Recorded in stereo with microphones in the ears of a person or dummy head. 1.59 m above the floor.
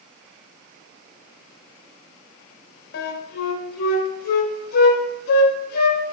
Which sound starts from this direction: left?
A flute, at 2.9 s.